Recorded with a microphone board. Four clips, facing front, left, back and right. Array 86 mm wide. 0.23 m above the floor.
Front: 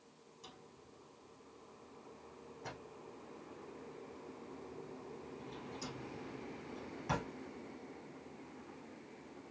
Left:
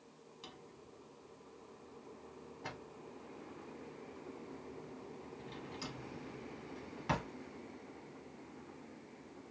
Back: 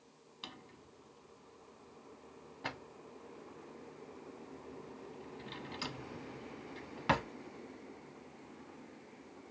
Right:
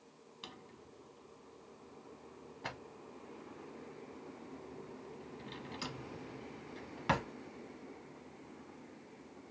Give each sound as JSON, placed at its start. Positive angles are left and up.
{"t": 0.4, "sound": "a drawer", "azimuth_deg": -145, "distance_m": 0.6}